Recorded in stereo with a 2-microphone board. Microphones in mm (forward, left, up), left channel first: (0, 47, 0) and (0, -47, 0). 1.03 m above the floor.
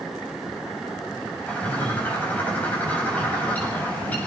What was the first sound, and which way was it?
A bird, 15° left (ahead or behind).